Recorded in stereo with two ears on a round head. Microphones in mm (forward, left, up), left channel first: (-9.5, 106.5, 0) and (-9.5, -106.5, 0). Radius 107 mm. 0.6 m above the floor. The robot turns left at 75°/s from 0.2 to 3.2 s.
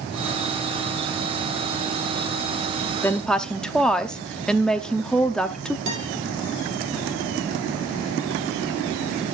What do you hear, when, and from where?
3.0 s a woman speaking: 10° left (ahead or behind), 0.7 m; by 5.8 s 5° left (ahead or behind), 0.7 m
5.9 s a guitar: 50° right (ahead or behind), 4.5 m